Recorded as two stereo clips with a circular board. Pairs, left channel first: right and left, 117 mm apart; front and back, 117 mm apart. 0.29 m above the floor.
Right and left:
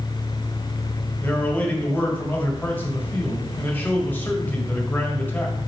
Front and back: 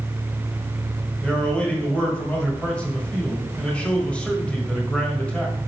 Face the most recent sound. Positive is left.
turn(degrees=-60)